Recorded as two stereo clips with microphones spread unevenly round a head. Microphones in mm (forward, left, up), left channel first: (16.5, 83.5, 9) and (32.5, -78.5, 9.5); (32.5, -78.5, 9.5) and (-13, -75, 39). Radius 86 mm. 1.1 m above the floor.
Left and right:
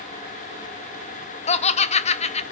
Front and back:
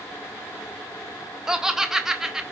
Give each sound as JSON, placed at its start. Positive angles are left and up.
{"t": 1.5, "sound": "laughter", "azimuth_deg": 65, "distance_m": 0.7}